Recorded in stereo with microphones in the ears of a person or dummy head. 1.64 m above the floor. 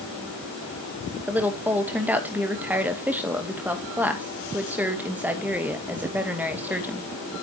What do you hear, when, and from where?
1.3 s a woman speaking: 10° right (ahead or behind), 2 m